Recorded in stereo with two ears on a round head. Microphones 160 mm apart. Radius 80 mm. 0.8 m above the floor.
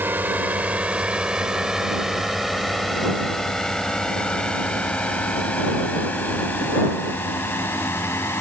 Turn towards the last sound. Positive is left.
turn(degrees=15)  # may be behind; listen again after turning